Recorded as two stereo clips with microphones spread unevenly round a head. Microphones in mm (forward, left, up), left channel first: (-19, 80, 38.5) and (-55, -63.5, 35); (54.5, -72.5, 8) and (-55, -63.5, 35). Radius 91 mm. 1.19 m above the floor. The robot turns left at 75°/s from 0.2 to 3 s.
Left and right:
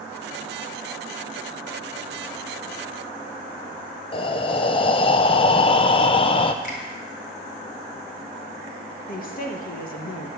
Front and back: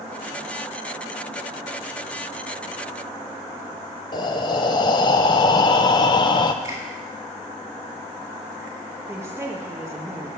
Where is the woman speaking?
95° left, 1.9 m.